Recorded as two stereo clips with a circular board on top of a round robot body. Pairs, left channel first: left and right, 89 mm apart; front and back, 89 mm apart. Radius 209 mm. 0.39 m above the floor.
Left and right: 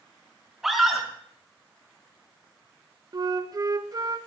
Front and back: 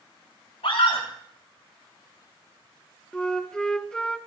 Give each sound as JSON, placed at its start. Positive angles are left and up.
{"t": 0.6, "sound": "a scream", "azimuth_deg": -5, "distance_m": 5.5}
{"t": 3.1, "sound": "a flute", "azimuth_deg": -75, "distance_m": 1.6}